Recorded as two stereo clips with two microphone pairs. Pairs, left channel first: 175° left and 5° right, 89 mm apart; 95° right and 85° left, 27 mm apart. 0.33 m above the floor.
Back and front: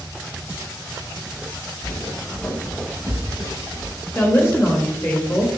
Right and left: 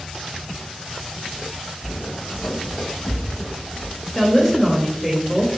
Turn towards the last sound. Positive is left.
turn(degrees=-170)